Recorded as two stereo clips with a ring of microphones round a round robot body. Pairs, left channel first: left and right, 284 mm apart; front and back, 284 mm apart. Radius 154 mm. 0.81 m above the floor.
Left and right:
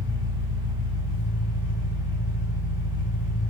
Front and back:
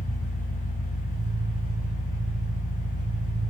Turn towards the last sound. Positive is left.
turn(degrees=105)